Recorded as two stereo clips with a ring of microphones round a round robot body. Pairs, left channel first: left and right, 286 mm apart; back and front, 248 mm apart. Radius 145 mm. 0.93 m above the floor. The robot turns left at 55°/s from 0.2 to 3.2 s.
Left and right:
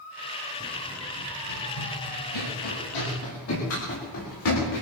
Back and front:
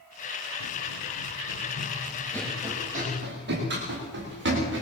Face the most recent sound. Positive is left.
turn(degrees=45)